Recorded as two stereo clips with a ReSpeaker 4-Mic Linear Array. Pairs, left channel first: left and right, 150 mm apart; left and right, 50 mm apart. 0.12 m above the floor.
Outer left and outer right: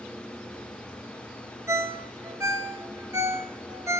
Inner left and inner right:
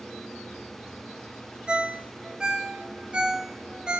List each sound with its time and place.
1.7 s a ringtone: 20° right (ahead or behind), 0.6 m